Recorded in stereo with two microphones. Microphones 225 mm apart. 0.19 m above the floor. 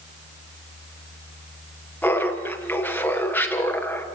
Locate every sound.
2.0 s laughter: 10° left (ahead or behind), 3.5 m